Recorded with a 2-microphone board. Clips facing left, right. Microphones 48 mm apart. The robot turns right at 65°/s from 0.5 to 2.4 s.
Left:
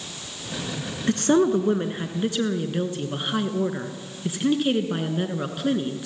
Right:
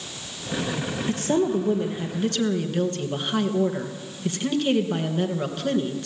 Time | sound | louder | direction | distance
1.1 | a woman speaking | left 4 dB | 80° left | 2.5 m